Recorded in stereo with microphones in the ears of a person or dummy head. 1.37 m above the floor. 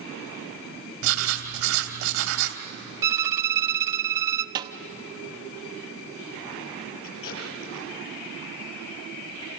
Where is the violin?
20° right (ahead or behind), 0.7 m.